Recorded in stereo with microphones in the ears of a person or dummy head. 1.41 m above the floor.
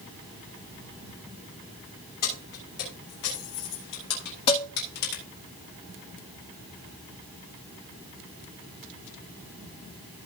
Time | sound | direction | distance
2.2 | keys jangling | 50° left (ahead or behind) | 6.5 m
4.5 | dishes clattering | 30° left (ahead or behind) | 1.3 m